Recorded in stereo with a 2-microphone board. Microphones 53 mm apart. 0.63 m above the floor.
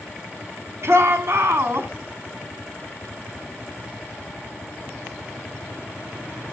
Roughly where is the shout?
Right.